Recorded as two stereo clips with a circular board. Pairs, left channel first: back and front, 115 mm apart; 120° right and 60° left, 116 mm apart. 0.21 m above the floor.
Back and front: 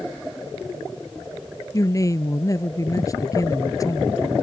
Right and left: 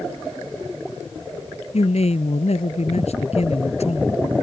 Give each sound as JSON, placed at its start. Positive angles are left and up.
{"t": 1.7, "sound": "a man speaking", "azimuth_deg": -125}